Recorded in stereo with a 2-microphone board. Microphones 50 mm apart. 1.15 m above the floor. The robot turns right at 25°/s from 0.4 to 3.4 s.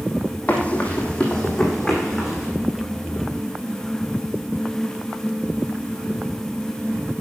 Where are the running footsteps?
30° left (ahead or behind), 2 m; by 2.5 s 10° right (ahead or behind), 3.5 m.